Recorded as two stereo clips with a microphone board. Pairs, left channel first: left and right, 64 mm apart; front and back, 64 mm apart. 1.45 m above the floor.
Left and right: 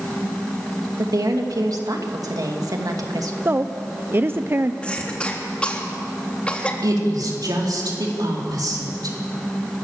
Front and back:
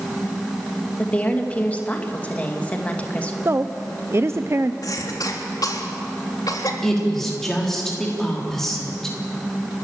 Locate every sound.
1.0 s a woman speaking: 70° right, 2 m
3.5 s a woman speaking: 140° right, 0.6 m
4.8 s a cough: 20° left, 3.5 m
6.8 s a woman speaking: 85° right, 4 m